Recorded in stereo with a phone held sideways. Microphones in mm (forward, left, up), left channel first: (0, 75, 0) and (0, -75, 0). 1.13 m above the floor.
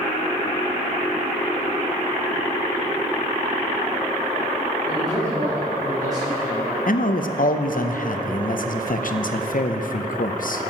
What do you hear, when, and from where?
4.9 s a man speaking: 25° right (ahead or behind), 4 m
6.9 s a man speaking: 65° left (ahead or behind), 0.6 m